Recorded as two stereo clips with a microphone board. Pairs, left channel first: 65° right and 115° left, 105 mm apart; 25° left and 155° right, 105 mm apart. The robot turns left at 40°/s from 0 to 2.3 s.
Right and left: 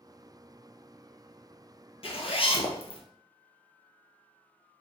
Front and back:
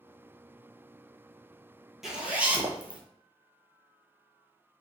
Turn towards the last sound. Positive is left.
turn(degrees=-80)